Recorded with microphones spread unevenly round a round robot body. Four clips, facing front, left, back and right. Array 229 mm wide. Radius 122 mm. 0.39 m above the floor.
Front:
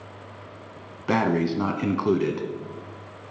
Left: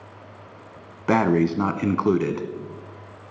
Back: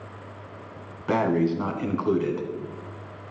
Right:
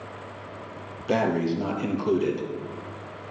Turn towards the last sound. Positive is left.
turn(degrees=60)